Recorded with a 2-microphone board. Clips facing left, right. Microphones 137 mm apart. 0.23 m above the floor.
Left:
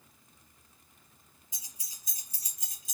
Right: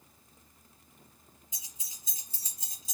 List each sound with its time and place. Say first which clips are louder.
1.5 s keys jangling: right 1 dB; 20° right (ahead or behind), 1.9 m; by 3.0 s 35° right (ahead or behind), 1.1 m